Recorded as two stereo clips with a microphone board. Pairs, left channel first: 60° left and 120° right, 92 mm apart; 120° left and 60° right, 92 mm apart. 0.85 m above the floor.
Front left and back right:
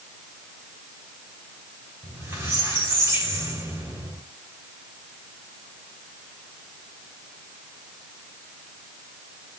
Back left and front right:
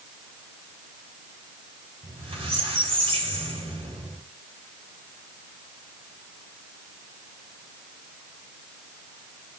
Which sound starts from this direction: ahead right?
A squeak, at 2.0 s.